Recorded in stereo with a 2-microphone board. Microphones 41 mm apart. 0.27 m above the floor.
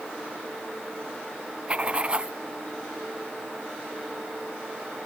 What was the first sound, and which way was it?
Writing, 25° right (ahead or behind).